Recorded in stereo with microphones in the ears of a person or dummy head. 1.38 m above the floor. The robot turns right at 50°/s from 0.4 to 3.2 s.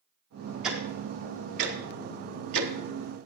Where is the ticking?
Centre (ahead or behind), 1.3 m; by 2.7 s 75° right (ahead or behind), 1.3 m.